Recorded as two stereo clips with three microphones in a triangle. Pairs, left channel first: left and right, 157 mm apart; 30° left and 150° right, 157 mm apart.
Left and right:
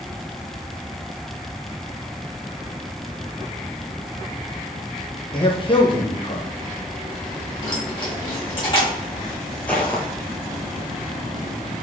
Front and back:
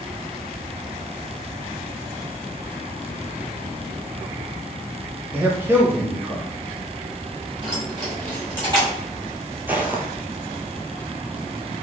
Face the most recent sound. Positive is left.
turn(degrees=155)